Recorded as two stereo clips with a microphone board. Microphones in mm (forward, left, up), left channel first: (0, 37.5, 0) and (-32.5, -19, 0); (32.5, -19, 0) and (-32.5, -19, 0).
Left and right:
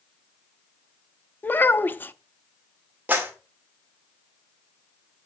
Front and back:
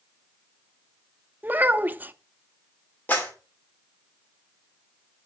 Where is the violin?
No violin in this recording.